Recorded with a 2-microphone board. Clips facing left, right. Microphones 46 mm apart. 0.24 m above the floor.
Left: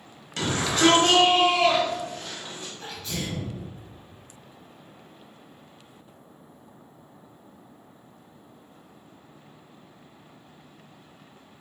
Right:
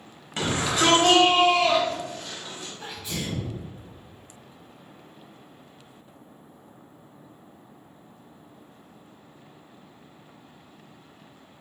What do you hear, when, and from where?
0.4 s a shout: 20° right (ahead or behind), 1.2 m; by 2.7 s 35° left (ahead or behind), 1.4 m
2.8 s a sneeze: 15° right (ahead or behind), 1.3 m